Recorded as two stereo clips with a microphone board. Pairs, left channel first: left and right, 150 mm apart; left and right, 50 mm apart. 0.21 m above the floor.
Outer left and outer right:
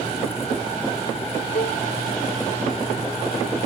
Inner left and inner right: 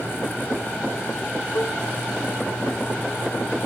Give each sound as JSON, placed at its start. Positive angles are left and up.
{"t": 1.6, "sound": "a cowbell", "side_deg": 65}